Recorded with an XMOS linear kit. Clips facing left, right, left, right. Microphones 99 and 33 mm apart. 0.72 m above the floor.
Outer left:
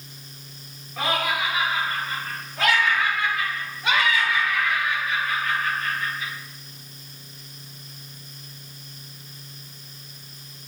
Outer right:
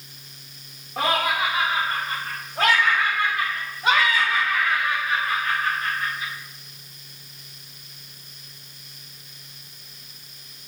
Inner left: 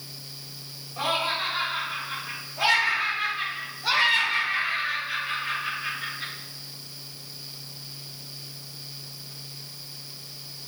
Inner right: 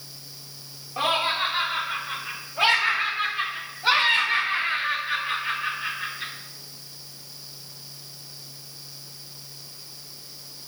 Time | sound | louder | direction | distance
1.0 | laughter | outer right 2 dB, inner right 3 dB | 45° right (ahead or behind) | 2 m